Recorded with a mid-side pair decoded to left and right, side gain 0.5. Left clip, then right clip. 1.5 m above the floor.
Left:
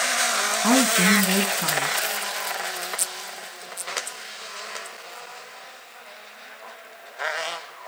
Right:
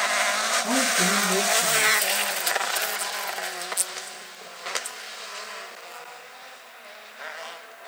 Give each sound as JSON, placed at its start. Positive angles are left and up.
{"t": 0.6, "sound": "a woman speaking", "azimuth_deg": 60, "distance_m": 2.5}